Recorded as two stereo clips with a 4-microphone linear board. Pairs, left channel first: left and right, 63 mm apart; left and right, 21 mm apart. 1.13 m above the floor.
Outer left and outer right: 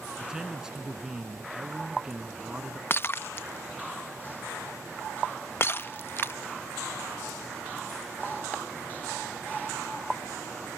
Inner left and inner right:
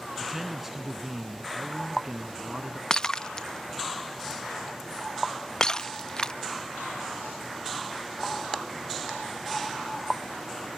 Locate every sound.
0.2 s a man speaking: 10° right (ahead or behind)
2.9 s breaking glass: 40° left (ahead or behind)